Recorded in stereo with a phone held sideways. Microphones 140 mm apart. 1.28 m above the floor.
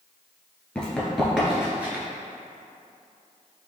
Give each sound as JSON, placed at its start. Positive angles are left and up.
{"t": 0.8, "sound": "running footsteps", "side_deg": 5, "distance_m": 1.4}